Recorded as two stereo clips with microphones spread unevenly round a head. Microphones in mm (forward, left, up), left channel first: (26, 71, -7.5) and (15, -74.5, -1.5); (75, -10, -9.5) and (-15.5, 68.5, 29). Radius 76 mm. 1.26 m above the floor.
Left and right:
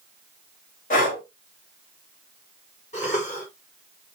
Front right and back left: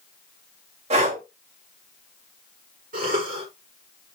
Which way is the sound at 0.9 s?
125° left.